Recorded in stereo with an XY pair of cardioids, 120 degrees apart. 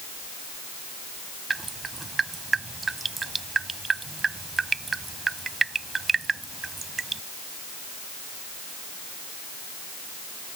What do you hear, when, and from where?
1.5 s dripping: 25° right